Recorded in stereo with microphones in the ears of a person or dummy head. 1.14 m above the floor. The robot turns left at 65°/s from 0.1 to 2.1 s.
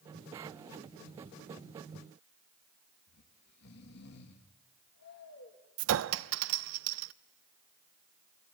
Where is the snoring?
60° left (ahead or behind), 2 m.